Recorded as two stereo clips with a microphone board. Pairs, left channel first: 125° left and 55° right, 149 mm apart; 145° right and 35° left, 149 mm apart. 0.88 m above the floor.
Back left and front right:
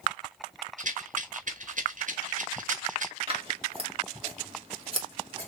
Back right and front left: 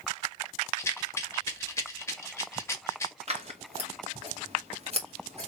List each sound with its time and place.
0.8 s a rattle: 75° right, 1.1 m
3.3 s scissors: 5° right, 1.7 m